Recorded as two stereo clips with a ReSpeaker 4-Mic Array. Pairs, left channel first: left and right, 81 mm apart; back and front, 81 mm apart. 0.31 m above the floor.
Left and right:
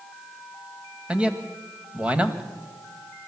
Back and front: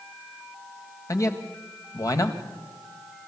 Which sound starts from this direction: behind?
A man speaking, at 1.1 s.